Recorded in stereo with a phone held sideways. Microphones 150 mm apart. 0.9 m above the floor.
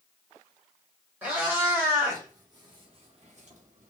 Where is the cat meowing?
10° right (ahead or behind), 1.5 m; by 3.9 s 60° right (ahead or behind), 0.6 m.